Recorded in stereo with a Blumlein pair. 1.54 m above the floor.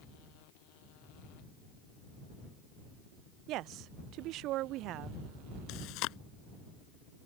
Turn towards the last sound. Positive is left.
turn(degrees=40)